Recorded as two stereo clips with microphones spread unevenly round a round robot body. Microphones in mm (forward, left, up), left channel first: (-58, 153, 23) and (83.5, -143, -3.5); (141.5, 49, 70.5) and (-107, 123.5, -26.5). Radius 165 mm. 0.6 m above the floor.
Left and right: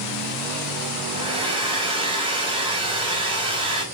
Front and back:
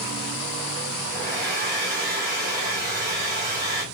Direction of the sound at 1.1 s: 135° right.